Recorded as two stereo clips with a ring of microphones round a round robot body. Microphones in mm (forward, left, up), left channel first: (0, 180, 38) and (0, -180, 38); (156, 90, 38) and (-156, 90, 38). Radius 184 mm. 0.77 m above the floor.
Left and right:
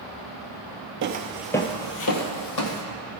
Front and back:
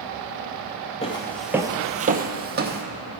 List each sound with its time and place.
1.0 s footsteps: 60° right, 0.9 m; by 2.8 s 125° left, 1.7 m